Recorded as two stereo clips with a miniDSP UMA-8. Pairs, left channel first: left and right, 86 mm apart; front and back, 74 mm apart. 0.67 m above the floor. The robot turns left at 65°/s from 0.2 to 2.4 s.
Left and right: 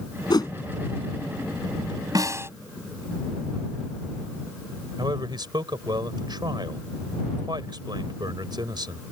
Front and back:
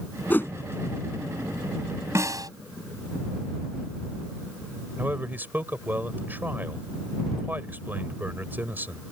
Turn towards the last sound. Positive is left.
turn(degrees=-115)